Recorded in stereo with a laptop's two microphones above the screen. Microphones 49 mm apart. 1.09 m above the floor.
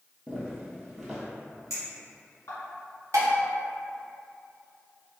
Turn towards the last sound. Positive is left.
turn(degrees=-90)